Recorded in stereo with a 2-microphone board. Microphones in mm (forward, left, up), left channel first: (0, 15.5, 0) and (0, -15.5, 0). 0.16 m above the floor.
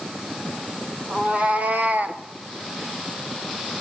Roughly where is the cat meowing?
Right.